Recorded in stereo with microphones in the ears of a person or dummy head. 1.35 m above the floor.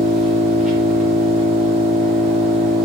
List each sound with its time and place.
0.0 s an engine running: centre (ahead or behind), 0.8 m